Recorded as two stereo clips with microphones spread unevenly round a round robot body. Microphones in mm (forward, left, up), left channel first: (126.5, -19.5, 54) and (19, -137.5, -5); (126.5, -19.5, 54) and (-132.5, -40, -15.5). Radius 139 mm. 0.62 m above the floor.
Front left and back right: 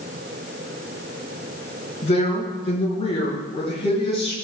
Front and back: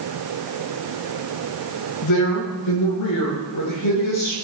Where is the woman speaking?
5° right, 8 m; by 4.3 s 15° right, 8.5 m.